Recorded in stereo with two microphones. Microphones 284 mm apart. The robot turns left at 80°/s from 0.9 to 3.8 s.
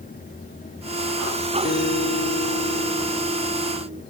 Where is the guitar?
130° left; by 4.0 s 45° right.